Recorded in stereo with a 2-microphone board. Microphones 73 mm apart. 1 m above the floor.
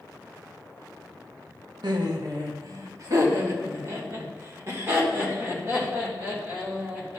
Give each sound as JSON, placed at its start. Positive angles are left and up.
{"t": 1.8, "sound": "laughter", "side_deg": -70, "distance_m": 1.0}